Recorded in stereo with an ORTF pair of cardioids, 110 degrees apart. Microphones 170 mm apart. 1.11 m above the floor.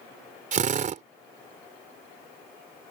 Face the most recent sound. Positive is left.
turn(degrees=-45)